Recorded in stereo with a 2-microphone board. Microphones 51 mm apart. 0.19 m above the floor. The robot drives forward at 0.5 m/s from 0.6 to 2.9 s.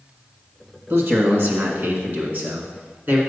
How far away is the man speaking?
About 1.7 m.